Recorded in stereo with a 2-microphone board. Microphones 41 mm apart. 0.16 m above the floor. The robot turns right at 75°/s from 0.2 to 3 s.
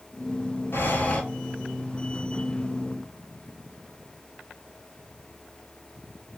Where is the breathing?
115° left, 0.6 m; by 1.2 s 150° left, 0.6 m.